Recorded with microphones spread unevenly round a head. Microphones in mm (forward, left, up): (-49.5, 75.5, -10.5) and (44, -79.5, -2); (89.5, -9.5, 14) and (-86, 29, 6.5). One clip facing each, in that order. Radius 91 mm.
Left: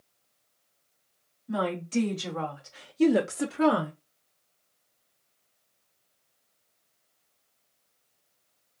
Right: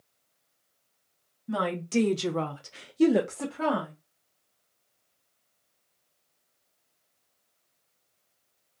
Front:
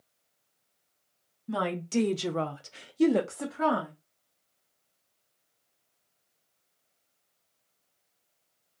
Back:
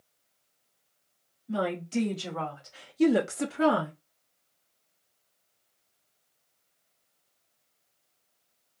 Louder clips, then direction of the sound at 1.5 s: Even, even; 30° right.